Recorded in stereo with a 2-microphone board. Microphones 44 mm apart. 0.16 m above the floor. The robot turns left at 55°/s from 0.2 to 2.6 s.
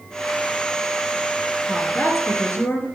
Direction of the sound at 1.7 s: 125° left.